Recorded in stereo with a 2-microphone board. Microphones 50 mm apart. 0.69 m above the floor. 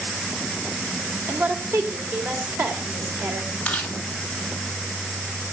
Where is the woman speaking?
60° right (ahead or behind), 3 m.